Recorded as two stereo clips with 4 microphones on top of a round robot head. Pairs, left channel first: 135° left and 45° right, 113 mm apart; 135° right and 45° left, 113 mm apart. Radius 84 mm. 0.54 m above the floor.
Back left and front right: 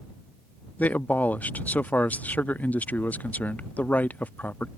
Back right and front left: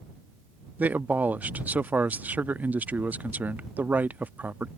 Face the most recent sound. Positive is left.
turn(degrees=90)